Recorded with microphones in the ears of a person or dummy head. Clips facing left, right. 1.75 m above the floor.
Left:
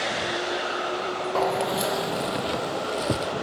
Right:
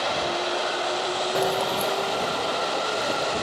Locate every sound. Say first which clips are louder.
1.4 s keys jangling: left 1 dB; 20° right (ahead or behind); by 3.3 s 40° left (ahead or behind)